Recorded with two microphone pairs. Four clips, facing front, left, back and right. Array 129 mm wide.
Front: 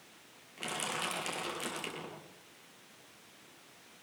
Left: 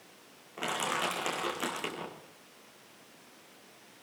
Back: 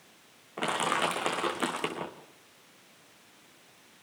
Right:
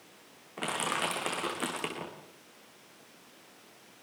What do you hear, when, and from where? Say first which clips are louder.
0.6 s crushing: even, back 10 dB; straight behind, 5.5 m